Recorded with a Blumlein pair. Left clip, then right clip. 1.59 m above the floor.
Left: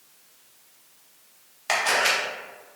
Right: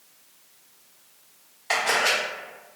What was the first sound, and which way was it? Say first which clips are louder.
A camera shutter: even; 50° left.